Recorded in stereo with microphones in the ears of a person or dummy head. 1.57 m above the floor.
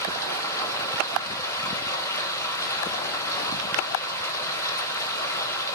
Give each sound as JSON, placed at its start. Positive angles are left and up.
{"t": 0.0, "sound": "running water", "side_deg": 15, "distance_m": 2.5}